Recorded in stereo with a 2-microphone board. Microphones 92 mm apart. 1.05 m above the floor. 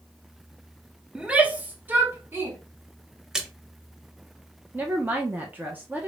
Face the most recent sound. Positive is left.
turn(degrees=-20)  # may be behind; listen again after turning